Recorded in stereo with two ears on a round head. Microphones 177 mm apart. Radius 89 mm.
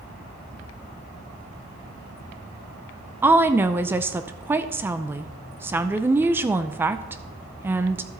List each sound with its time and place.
3.2 s a woman speaking: 10° right (ahead or behind), 0.5 m